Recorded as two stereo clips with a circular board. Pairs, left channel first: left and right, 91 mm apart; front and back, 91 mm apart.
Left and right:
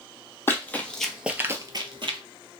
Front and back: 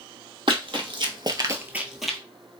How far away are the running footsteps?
About 1.0 m.